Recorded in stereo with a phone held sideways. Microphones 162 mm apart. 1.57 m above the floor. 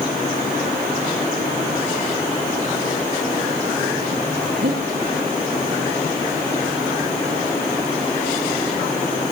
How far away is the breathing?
About 2.5 m.